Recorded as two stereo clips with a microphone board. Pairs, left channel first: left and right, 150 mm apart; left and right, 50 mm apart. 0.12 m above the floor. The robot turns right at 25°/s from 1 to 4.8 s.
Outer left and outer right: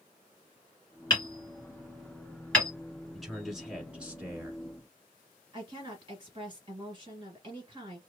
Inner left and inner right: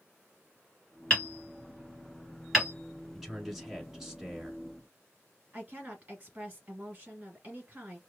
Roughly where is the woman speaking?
Right.